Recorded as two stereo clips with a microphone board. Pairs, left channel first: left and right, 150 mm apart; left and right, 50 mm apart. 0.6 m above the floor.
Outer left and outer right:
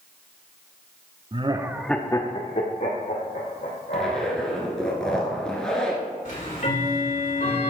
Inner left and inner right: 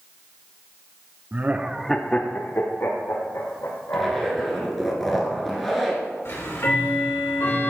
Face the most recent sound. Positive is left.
turn(degrees=55)  # may be behind; listen again after turning